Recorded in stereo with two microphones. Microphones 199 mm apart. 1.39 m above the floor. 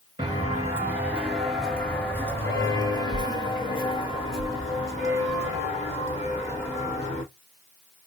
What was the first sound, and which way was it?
Footsteps, 20° right (ahead or behind).